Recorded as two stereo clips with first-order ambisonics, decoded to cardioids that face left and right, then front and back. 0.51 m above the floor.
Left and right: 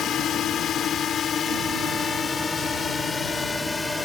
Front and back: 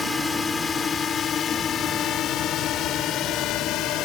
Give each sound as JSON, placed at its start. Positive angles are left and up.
{"t": 0.0, "sound": "a drone", "azimuth_deg": 70}